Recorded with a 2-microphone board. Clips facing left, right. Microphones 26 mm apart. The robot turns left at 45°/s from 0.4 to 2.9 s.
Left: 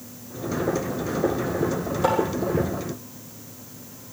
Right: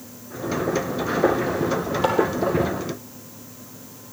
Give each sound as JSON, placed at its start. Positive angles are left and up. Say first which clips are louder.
{"t": 2.0, "sound": "tapping", "louder": "left 1 dB", "side_deg": -40, "distance_m": 3.5}